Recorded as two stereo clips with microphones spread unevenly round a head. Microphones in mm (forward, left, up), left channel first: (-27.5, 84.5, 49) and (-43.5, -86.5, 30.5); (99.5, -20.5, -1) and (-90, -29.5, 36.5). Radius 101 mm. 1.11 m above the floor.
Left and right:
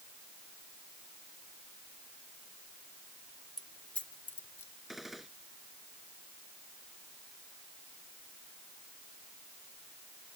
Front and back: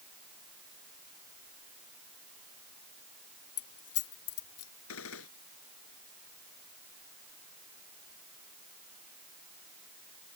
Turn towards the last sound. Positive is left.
turn(degrees=-5)